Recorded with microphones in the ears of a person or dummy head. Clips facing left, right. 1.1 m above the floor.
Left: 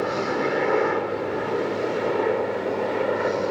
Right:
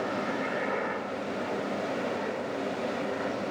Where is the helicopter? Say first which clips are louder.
Left 7 dB; 60° left (ahead or behind); by 3.5 s 70° left (ahead or behind).